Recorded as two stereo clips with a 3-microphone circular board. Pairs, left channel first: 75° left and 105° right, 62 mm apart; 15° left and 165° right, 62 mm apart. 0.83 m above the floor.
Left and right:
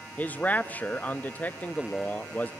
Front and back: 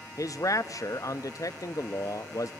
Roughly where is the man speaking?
Ahead.